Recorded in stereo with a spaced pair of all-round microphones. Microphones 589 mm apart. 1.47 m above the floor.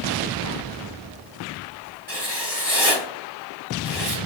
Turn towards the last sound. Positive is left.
turn(degrees=-65)  # may be behind; listen again after turning